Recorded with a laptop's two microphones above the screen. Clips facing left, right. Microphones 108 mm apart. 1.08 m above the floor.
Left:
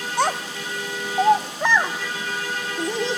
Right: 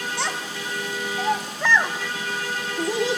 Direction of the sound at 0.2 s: 50° left (ahead or behind).